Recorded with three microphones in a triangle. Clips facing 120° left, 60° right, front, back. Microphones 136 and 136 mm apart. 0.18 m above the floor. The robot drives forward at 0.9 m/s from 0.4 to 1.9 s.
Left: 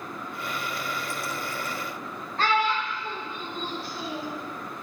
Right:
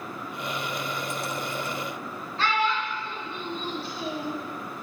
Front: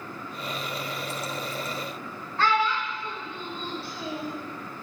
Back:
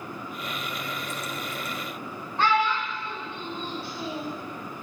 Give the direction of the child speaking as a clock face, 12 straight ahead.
8 o'clock.